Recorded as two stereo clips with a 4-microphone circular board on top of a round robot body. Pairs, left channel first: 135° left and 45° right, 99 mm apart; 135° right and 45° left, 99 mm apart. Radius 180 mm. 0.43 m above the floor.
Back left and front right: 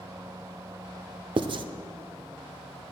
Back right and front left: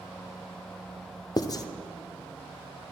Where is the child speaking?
I don't hear a child speaking.